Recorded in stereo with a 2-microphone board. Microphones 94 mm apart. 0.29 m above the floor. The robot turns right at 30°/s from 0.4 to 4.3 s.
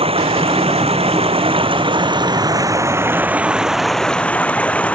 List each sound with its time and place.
0.0 s running water: 105° right; by 5.0 s 15° left